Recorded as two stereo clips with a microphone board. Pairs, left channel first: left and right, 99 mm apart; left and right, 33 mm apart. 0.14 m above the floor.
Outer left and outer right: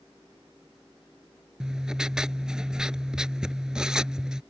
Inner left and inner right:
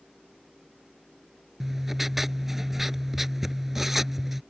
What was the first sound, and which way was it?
Writing, 10° right (ahead or behind).